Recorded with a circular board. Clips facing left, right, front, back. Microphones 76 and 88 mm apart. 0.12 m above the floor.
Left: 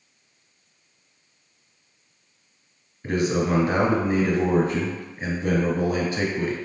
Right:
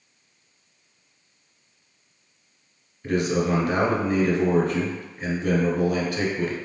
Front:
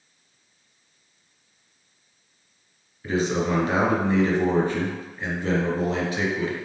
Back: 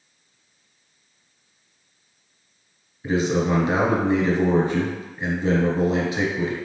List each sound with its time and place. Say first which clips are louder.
3.0 s a man speaking: even, back 2 dB; 130° left, 1.1 m